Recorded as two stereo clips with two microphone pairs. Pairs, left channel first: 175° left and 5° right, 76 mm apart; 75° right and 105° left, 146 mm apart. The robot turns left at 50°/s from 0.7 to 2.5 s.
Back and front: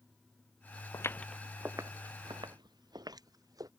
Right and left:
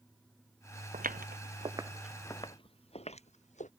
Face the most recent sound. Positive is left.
turn(degrees=-45)